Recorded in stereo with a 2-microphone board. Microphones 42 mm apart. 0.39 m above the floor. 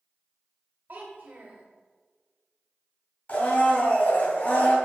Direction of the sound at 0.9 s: 60° right (ahead or behind).